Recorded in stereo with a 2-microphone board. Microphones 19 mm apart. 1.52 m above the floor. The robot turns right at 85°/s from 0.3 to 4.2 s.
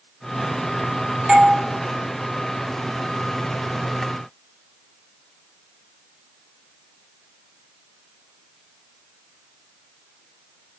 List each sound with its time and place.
1.3 s a doorbell: 30° right (ahead or behind), 0.6 m; by 1.6 s 40° right (ahead or behind), 0.6 m